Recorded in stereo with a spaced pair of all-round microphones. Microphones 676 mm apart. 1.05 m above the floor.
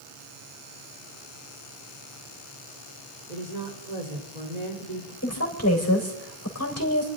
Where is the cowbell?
I don't hear a cowbell.